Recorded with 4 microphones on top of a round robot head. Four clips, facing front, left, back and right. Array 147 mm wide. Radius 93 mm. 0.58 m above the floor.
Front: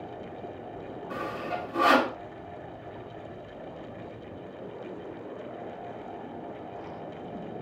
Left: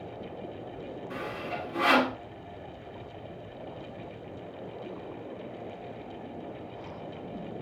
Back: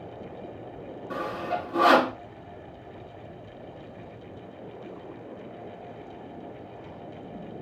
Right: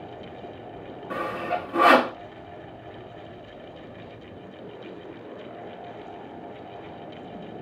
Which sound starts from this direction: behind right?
Sawing, at 1.1 s.